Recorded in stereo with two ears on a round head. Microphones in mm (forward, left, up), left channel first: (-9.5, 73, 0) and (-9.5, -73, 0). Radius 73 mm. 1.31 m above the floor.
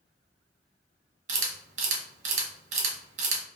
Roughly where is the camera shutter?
Right.